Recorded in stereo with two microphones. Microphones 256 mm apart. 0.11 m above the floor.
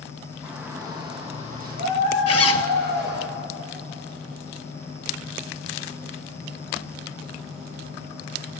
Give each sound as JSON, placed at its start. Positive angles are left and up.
{"t": 0.4, "sound": "a shout", "side_deg": -5, "distance_m": 4.0}
{"t": 2.3, "sound": "a zipper", "side_deg": 65, "distance_m": 0.7}